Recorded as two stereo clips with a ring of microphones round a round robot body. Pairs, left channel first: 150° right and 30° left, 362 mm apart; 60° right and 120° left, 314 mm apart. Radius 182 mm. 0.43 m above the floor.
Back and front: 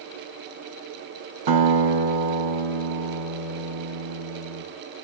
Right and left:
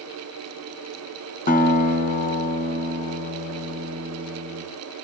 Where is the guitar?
5° left, 4.5 m.